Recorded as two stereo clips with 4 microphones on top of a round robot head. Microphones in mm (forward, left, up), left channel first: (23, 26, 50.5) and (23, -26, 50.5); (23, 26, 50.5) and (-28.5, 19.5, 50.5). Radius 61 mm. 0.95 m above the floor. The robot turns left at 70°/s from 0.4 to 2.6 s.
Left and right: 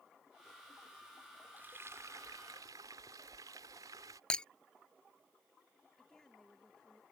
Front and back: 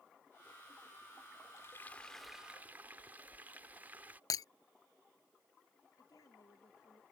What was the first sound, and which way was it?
Frying, 35° right.